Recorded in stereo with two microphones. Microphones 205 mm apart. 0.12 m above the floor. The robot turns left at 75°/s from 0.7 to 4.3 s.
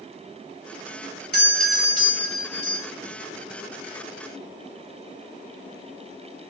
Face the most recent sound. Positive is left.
turn(degrees=-145)